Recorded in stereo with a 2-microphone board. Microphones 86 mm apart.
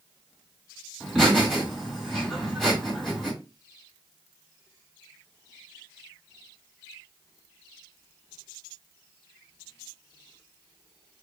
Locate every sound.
1.0 s laughter: 5° left (ahead or behind), 1.9 m